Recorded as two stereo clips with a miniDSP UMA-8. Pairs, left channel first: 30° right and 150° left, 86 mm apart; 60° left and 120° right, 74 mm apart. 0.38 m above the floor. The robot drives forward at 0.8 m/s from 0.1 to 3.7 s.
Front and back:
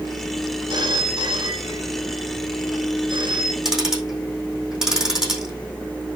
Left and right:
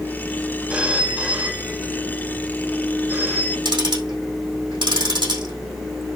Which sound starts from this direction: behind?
A phone ringing, at 0.7 s.